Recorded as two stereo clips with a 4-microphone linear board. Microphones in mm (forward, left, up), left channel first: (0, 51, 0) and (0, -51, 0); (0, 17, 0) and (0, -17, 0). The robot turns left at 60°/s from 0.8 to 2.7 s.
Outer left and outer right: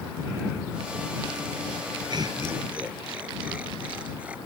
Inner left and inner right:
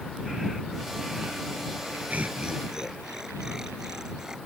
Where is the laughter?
50° right (ahead or behind); by 4.4 s 15° right (ahead or behind).